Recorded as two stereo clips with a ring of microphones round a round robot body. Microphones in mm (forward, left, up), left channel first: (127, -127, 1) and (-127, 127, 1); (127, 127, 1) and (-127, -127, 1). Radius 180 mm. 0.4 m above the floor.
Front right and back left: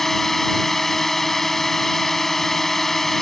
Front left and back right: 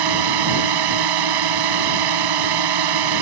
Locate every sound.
0.0 s a drone: 135° right